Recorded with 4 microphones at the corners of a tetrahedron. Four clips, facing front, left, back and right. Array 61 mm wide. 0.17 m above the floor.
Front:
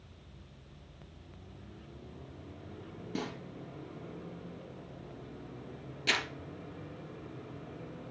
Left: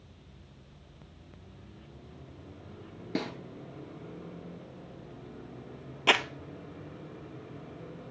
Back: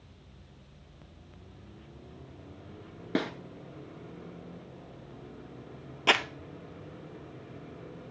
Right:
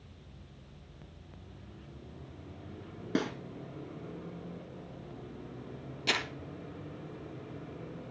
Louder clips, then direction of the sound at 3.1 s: Right 2 dB, back 7 dB; 165° right.